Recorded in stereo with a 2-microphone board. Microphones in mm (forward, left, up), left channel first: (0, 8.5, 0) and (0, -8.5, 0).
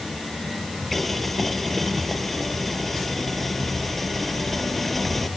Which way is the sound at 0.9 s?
15° left (ahead or behind).